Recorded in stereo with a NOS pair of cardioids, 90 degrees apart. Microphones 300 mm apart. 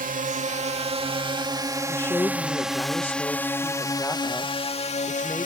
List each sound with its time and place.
0.0 s a drone: 30° right; by 5.5 s 25° left
1.9 s a woman speaking: 5° left